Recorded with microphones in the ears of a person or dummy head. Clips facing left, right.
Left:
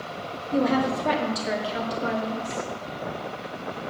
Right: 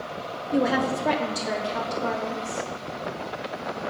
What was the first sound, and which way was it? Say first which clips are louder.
A woman speaking: left 1 dB; 15° right (ahead or behind).